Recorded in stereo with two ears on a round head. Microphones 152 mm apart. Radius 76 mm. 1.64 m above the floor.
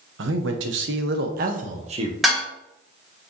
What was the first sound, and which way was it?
A man speaking, 80° right.